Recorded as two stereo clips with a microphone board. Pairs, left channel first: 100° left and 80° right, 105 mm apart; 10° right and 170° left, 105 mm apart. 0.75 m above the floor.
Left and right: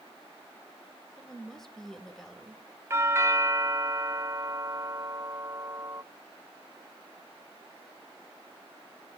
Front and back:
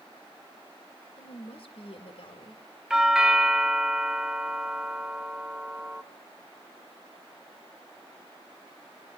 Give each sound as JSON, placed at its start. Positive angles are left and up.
{"t": 1.2, "sound": "a woman speaking", "azimuth_deg": 15, "distance_m": 3.0}
{"t": 2.9, "sound": "a doorbell", "azimuth_deg": -110, "distance_m": 0.9}